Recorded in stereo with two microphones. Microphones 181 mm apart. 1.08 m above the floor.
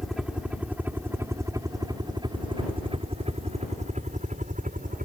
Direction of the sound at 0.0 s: Centre (ahead or behind).